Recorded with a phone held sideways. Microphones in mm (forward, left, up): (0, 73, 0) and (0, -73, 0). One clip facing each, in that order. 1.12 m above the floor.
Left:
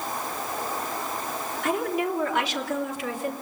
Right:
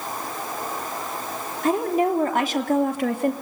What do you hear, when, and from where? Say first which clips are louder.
1.6 s a woman speaking: right 6 dB; 35° right (ahead or behind), 3 m; by 3.3 s 65° right (ahead or behind), 2 m